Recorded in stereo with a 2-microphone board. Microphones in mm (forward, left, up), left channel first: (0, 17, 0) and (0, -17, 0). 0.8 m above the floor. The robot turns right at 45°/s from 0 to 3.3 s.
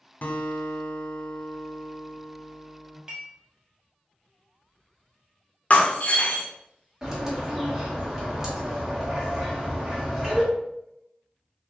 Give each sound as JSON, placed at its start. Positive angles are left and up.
{"t": 0.2, "sound": "a guitar", "azimuth_deg": 90, "distance_m": 0.8}
{"t": 3.1, "sound": "dishes clattering", "side_deg": -30, "distance_m": 1.1}
{"t": 5.7, "sound": "breaking glass", "side_deg": 40, "distance_m": 0.7}
{"t": 7.0, "sound": "a bird", "side_deg": -15, "distance_m": 1.2}